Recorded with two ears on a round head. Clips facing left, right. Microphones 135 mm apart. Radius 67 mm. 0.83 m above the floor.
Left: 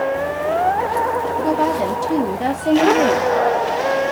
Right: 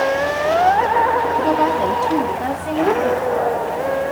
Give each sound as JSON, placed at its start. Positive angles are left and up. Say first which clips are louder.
{"t": 1.4, "sound": "a woman speaking", "louder": "right 1 dB", "side_deg": -5, "distance_m": 1.2}